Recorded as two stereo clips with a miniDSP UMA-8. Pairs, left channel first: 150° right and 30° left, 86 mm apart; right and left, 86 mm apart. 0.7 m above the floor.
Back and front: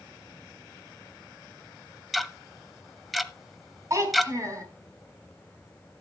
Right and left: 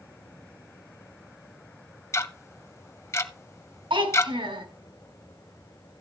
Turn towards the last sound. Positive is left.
turn(degrees=80)